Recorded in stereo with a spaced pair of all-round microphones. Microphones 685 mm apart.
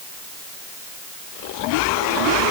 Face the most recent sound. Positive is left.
No sound to turn to.